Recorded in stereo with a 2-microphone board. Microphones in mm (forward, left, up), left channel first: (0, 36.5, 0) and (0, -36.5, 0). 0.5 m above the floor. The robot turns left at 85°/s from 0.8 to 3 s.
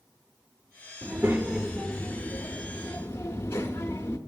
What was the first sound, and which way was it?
A child speaking, 130° right.